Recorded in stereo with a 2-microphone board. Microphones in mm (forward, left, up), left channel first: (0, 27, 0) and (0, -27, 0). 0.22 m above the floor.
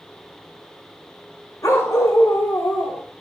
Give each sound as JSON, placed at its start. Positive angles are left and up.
{"t": 1.6, "sound": "a dog barking", "side_deg": 80, "distance_m": 6.5}